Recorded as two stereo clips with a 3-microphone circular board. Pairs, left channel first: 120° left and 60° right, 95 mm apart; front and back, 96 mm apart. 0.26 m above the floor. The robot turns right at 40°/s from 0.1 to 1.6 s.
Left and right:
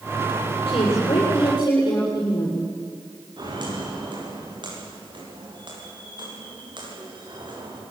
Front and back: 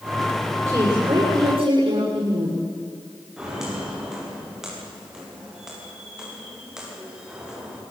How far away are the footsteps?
About 9.5 m.